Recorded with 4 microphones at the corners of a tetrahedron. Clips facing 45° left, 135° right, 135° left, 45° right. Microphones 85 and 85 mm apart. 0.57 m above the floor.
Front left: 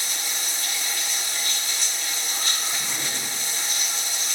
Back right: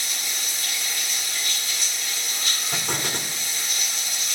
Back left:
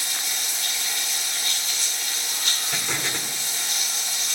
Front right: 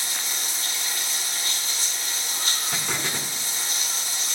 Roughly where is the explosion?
Behind right.